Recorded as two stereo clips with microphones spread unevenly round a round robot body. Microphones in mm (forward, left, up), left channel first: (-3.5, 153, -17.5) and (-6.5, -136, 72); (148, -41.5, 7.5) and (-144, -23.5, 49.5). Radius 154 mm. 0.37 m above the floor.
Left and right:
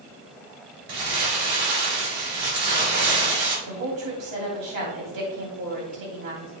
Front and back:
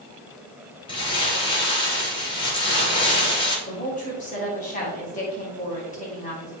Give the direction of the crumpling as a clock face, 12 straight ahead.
3 o'clock.